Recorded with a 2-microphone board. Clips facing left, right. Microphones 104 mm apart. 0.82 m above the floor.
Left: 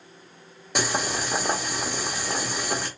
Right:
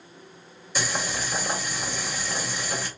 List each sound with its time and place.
0.8 s boiling: 65° left (ahead or behind), 1.5 m